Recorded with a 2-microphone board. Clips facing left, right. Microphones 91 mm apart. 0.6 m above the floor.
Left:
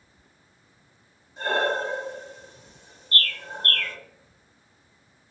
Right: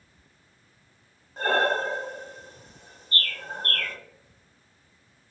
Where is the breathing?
45° right (ahead or behind), 0.8 m.